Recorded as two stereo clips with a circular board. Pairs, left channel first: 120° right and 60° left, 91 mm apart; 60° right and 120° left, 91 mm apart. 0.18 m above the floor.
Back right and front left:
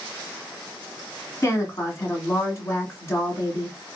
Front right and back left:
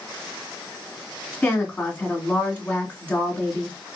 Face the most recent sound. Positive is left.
turn(degrees=-120)